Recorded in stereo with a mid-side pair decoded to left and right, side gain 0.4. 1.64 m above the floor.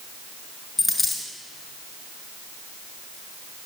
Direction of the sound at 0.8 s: 40° left.